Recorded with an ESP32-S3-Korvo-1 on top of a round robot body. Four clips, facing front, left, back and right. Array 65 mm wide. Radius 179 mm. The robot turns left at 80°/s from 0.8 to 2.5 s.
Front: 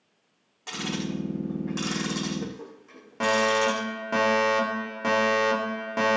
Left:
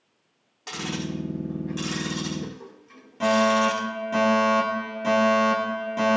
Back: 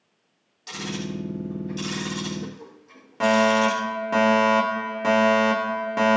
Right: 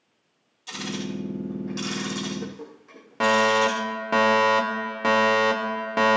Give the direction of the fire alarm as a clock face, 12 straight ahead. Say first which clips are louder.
Even, back 4 dB; 3 o'clock.